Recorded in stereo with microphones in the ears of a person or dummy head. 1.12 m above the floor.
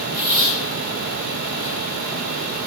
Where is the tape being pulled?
45° right (ahead or behind), 1.9 m.